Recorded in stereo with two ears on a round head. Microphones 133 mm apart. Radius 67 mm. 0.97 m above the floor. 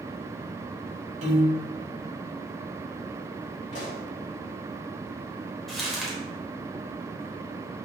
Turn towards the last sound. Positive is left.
turn(degrees=0)  # may be behind; listen again after turning